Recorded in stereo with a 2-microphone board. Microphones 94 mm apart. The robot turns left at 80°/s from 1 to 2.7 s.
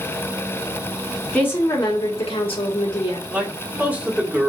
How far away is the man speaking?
About 1.3 m.